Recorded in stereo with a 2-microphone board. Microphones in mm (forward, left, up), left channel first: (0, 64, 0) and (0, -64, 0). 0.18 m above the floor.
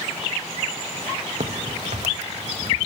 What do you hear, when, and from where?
1.4 s a crack: 60° right (ahead or behind), 0.9 m